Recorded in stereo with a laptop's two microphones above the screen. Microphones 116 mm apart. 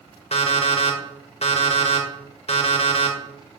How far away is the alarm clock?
About 1.5 m.